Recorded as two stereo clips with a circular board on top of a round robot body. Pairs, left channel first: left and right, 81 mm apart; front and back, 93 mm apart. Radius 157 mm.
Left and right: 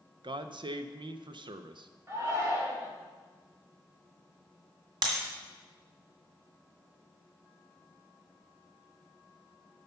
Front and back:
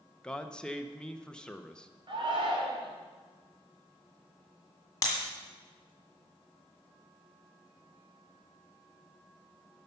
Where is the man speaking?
80° right, 0.6 m.